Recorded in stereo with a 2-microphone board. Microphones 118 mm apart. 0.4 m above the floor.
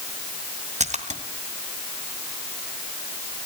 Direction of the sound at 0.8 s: 70° right (ahead or behind).